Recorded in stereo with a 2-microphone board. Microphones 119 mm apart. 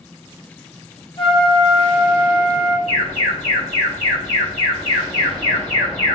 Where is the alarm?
80° left, 1.7 m.